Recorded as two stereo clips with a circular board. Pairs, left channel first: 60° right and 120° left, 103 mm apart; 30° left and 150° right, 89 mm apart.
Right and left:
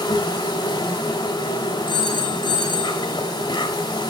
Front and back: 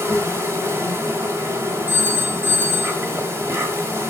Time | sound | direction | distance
0.0 | an insect | 95° right | 1.5 m
1.9 | a phone ringing | 145° left | 1.3 m